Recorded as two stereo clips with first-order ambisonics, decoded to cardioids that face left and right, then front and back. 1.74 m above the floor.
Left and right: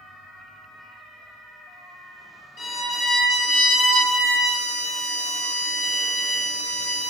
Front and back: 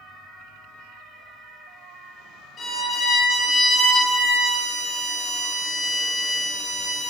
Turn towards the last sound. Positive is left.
turn(degrees=65)